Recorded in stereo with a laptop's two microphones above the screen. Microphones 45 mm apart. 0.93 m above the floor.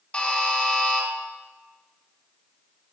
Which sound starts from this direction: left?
A buzzer, at 0.1 s.